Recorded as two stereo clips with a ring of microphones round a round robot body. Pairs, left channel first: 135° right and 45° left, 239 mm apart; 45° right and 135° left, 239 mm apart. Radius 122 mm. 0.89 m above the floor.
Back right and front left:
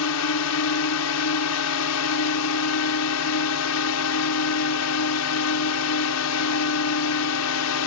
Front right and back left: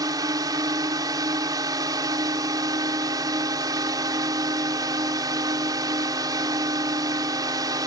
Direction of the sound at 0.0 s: 150° right.